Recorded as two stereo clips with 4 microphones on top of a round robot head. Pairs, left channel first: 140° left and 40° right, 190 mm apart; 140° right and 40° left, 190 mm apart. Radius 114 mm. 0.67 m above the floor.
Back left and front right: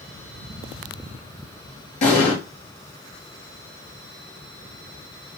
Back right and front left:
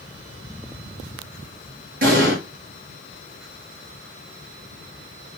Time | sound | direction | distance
2.0 | an explosion | 85° left | 6 m